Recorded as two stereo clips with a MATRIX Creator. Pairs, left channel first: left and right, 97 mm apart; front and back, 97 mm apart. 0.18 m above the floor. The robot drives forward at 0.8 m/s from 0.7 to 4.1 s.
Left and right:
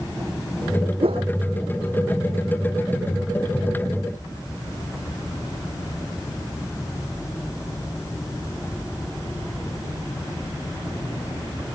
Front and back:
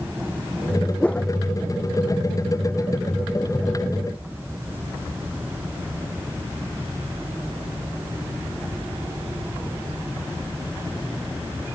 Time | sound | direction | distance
1.0 | a whoosh | 75° right | ?